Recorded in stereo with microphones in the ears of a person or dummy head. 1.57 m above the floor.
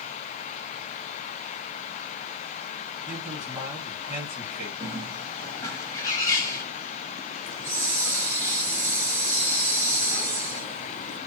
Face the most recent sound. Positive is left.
turn(degrees=15)  # may be behind; listen again after turning